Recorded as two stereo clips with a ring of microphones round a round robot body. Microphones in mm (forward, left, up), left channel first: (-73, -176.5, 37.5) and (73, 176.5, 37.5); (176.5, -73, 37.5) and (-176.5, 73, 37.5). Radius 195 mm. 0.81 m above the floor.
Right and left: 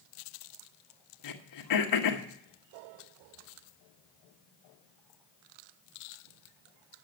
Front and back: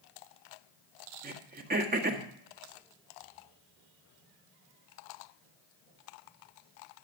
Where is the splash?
I don't hear a splash.